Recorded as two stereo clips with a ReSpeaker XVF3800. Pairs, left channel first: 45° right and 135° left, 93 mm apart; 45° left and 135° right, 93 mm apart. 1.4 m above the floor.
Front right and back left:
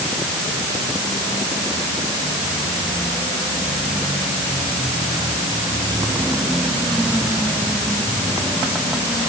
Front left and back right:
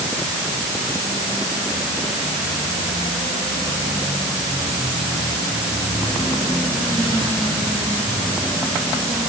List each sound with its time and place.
Only background noise.